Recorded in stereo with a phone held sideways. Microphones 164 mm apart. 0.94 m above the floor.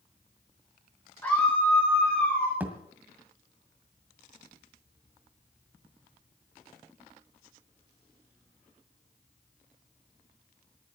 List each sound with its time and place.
1.2 s a scream: 15° left (ahead or behind), 4 m; by 2.5 s 10° left (ahead or behind), 4.5 m
2.6 s a thud: 10° right (ahead or behind), 1.8 m